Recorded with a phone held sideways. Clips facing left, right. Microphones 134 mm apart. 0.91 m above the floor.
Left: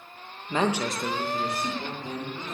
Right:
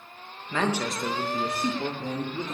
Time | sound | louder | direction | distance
0.5 | a man speaking | left 1 dB | 25° left (ahead or behind) | 1.1 m